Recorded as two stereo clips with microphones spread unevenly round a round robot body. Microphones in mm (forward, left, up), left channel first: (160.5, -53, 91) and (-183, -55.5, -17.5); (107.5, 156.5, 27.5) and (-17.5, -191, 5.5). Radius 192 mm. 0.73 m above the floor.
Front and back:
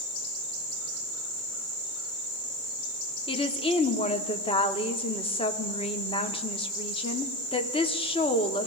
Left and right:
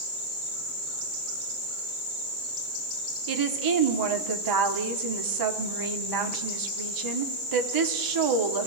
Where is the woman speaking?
80° right, 1.4 m.